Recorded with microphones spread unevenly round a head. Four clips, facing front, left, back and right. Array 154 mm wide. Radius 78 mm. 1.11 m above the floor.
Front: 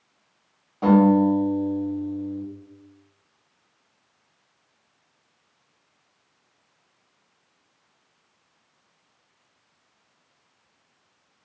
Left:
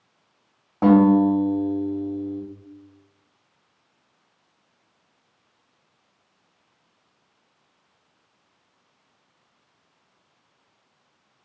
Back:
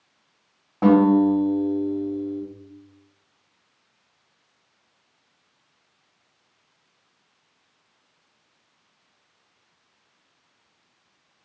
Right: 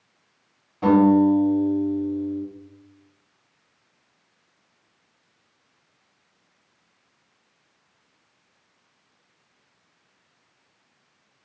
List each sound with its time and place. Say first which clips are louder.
0.8 s a guitar: left 1 dB, back 1 dB; 115° left, 1.1 m